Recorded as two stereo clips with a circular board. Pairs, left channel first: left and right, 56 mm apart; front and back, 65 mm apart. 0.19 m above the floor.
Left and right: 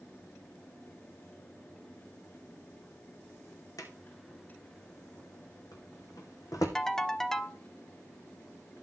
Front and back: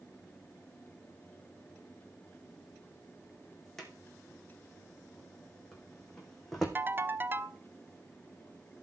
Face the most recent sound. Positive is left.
turn(degrees=165)